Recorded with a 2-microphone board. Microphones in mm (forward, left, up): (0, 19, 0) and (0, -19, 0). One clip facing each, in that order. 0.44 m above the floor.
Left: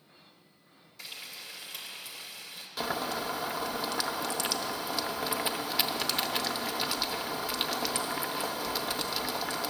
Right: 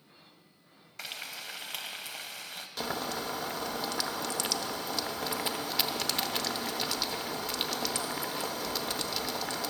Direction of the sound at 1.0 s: 75° right (ahead or behind).